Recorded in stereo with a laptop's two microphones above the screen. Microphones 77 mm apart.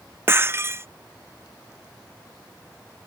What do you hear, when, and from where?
0.3 s breaking glass: 30° right (ahead or behind)